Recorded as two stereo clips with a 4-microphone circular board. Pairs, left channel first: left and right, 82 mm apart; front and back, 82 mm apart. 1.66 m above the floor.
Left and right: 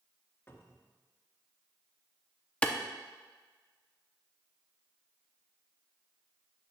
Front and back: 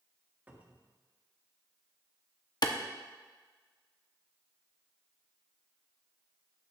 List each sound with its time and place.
0.5 s a cupboard door: 125° left, 1.3 m
2.6 s a clap: 20° left, 0.9 m